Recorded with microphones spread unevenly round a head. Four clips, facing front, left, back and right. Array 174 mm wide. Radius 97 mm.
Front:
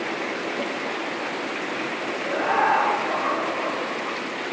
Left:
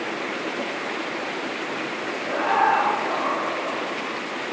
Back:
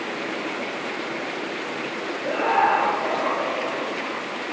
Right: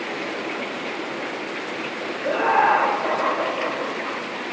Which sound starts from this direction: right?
Laughter, at 2.2 s.